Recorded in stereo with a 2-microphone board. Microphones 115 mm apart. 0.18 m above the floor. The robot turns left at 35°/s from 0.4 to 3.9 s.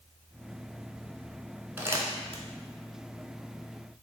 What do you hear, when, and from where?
1.8 s crumpling: 15° right (ahead or behind), 0.6 m; by 2.4 s 35° right (ahead or behind), 0.6 m